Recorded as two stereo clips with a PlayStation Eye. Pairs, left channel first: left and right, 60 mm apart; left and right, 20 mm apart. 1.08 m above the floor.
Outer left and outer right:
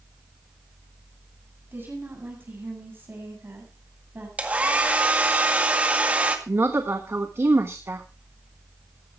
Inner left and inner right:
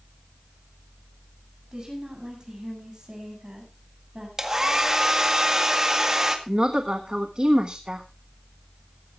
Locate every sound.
1.7 s a woman speaking: 35° right (ahead or behind), 8 m
4.4 s a hair dryer: 20° right (ahead or behind), 1.8 m
6.5 s a woman speaking: 45° right (ahead or behind), 1.2 m